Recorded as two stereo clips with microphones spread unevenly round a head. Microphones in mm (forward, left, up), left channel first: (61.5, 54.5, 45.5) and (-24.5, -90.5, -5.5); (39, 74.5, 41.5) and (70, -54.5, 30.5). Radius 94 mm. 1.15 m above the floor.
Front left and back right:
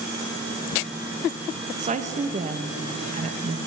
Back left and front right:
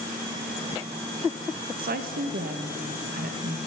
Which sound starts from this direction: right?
A woman speaking, at 1.8 s.